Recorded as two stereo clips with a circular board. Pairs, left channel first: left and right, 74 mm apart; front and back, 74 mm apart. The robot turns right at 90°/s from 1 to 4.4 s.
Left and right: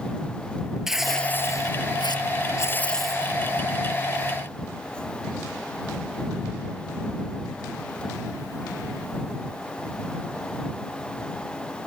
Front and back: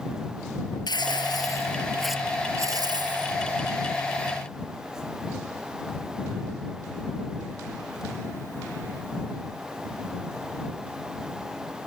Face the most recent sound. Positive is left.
turn(degrees=-60)